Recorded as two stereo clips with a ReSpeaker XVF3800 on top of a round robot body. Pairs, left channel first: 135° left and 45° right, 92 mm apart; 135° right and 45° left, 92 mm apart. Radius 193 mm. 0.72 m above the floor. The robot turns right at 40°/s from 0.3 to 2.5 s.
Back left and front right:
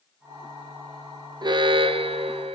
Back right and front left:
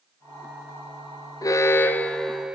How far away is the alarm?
About 0.5 m.